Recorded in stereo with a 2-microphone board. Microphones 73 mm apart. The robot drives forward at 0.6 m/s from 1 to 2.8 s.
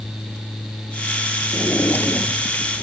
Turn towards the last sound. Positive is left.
turn(degrees=25)  # may be behind; listen again after turning